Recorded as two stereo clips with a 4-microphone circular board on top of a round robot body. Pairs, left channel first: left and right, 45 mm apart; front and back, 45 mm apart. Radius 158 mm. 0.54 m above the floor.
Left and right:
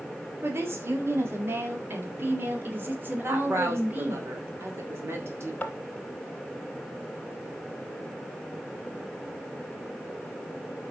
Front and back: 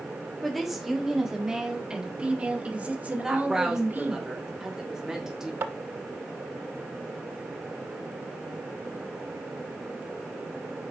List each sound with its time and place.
0.4 s a woman speaking: 90° right, 2.5 m; by 4.2 s 140° right, 3 m
3.2 s a woman speaking: 105° right, 2.5 m
5.6 s tapping: 155° left, 0.5 m